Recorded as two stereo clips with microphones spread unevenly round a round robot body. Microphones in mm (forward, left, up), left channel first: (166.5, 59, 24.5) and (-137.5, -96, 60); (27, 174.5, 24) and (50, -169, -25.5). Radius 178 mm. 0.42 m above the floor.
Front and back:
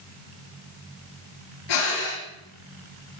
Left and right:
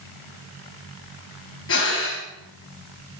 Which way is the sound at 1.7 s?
40° left.